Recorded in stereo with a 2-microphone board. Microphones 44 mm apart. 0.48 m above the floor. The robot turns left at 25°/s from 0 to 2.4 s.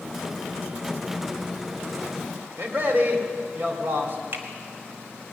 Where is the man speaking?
40° right (ahead or behind), 2.5 m.